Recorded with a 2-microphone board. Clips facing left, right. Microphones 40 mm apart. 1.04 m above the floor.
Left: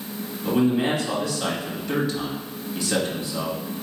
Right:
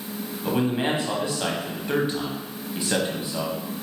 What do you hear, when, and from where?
0.5 s a man speaking: 30° right (ahead or behind), 1.2 m